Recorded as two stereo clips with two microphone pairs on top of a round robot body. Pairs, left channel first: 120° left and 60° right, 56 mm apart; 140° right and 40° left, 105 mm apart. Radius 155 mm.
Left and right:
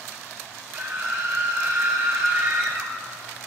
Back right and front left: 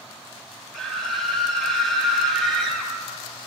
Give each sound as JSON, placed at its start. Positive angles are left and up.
{"t": 0.7, "sound": "a scream", "azimuth_deg": -50, "distance_m": 1.8}